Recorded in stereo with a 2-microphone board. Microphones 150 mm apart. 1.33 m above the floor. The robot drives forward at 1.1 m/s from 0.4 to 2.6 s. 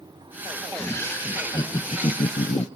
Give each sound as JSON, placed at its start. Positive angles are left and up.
{"t": 0.7, "sound": "laughter", "side_deg": 15, "distance_m": 2.0}